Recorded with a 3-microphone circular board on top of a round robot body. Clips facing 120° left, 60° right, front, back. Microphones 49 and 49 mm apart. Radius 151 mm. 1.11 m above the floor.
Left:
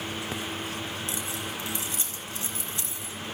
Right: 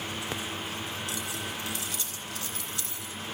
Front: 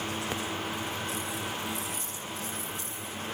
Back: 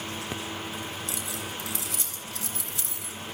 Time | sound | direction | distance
1.1 | keys jangling | 175° right | 4 m